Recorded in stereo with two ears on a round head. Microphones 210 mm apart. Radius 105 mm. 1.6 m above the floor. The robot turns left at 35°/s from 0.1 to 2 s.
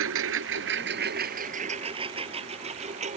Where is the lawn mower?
65° right (ahead or behind); by 3.2 s 30° right (ahead or behind).